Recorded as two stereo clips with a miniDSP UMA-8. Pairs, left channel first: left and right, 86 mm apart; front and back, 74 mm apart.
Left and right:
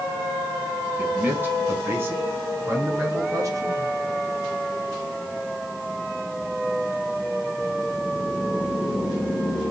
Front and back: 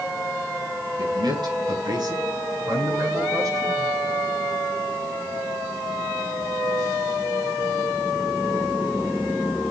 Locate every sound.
1.0 s a man speaking: 160° right, 5.5 m; by 3.9 s 140° right, 9 m